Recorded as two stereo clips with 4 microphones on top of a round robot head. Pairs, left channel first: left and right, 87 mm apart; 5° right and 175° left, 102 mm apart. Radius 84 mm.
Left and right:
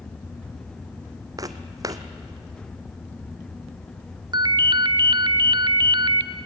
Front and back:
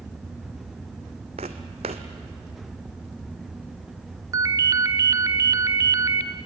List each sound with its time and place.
1.4 s footsteps: 135° right, 1.2 m
4.3 s a ringtone: 125° right, 0.9 m